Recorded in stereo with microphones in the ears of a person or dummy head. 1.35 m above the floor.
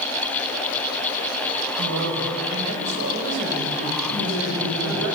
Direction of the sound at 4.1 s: 65° left (ahead or behind).